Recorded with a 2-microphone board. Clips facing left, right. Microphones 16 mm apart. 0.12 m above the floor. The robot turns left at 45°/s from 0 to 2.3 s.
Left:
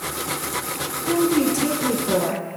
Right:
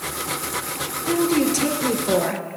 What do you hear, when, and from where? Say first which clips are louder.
1.0 s a woman speaking: even; 30° right, 2 m; by 2.4 s 85° right, 2 m